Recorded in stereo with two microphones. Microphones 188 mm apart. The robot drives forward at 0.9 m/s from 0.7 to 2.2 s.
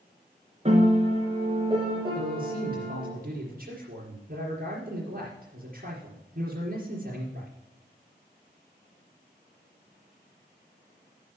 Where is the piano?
35° right (ahead or behind), 2 m; by 3.1 s 25° right (ahead or behind), 3.5 m.